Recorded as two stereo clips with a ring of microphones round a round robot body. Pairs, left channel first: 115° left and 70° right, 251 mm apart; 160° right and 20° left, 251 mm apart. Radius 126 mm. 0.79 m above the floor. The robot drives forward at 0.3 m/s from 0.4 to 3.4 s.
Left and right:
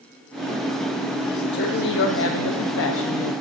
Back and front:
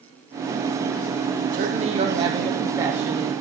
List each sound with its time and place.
1.5 s a woman speaking: 75° left, 1.1 m; by 3.3 s 110° left, 1.1 m